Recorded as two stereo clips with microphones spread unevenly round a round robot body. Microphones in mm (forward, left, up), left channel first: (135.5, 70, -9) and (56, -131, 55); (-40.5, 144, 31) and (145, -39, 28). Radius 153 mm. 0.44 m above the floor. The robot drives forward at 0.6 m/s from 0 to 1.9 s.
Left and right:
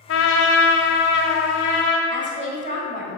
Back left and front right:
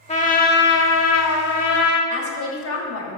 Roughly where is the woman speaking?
Behind.